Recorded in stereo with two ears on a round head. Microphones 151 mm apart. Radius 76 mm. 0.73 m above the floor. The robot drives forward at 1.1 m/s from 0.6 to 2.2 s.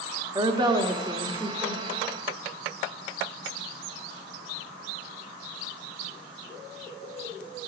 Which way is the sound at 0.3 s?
25° right (ahead or behind).